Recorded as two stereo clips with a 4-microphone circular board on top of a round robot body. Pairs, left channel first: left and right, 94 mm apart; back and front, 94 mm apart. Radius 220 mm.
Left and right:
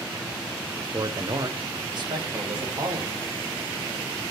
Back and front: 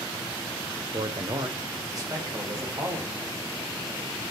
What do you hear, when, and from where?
0.9 s a man speaking: 40° right, 1.0 m; by 3.2 s 55° right, 3 m